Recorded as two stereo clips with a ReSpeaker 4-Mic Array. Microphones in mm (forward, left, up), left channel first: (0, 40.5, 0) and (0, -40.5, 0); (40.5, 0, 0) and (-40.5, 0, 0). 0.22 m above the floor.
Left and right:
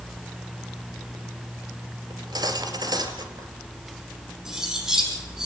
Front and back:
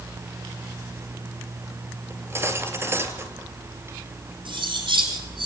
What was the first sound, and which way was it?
Cutlery clinking, 120° right.